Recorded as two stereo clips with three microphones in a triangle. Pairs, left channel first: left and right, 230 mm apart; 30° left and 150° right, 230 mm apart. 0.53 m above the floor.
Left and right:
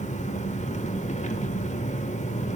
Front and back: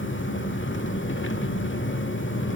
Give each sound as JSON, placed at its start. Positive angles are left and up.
{"t": 0.0, "sound": "an engine running", "azimuth_deg": 40, "distance_m": 1.4}